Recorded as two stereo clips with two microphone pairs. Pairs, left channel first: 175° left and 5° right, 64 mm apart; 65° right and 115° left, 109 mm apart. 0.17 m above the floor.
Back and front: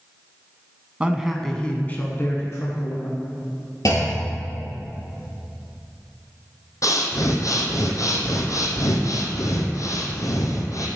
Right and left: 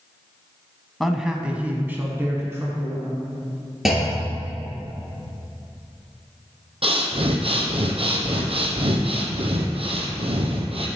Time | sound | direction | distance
1.0 | a man speaking | 20° left | 1.0 m
3.9 | a clunk | 160° right | 3 m
6.8 | breathing | 145° left | 1.5 m